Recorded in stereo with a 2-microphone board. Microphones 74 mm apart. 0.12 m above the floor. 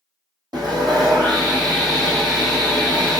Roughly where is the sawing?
Right.